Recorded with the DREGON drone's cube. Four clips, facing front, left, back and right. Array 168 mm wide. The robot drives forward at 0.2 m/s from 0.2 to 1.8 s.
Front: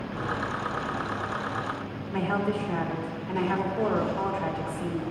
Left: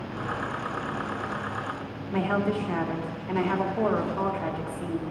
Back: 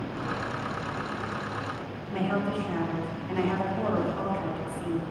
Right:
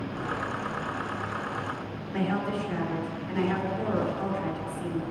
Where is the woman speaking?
95° left, 2.5 m.